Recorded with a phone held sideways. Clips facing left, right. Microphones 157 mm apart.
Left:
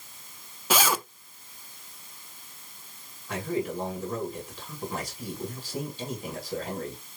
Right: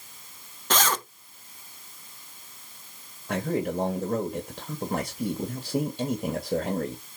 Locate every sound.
0.7 s a zipper: 10° left (ahead or behind), 0.6 m
3.3 s a man speaking: 50° right (ahead or behind), 2.5 m